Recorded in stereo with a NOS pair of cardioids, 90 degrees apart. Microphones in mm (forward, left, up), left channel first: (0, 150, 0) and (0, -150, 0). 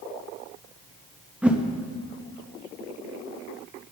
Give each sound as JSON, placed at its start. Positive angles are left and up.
{"t": 1.4, "sound": "a whoosh", "azimuth_deg": -5, "distance_m": 0.9}